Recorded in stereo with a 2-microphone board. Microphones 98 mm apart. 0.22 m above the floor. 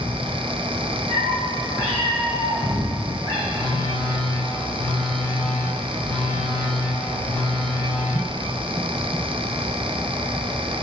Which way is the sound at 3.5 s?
50° right (ahead or behind).